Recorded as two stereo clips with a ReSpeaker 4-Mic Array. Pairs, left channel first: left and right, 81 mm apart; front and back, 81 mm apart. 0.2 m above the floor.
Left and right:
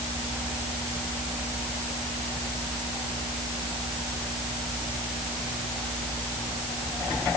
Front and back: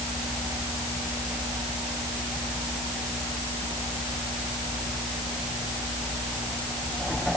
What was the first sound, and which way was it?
Only background noise.